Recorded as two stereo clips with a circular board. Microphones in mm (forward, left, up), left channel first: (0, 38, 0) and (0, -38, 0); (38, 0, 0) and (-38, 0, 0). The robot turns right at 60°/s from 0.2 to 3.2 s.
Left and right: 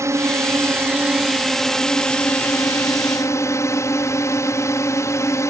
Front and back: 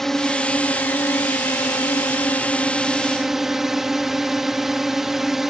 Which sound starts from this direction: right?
A drone, at 0.0 s.